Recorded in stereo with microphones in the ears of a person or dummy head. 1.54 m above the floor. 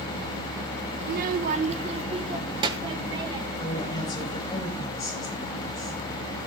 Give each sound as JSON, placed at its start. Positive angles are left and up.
{"t": 1.0, "sound": "a child speaking", "side_deg": -55, "distance_m": 0.6}
{"t": 3.6, "sound": "a woman speaking", "side_deg": 20, "distance_m": 7.0}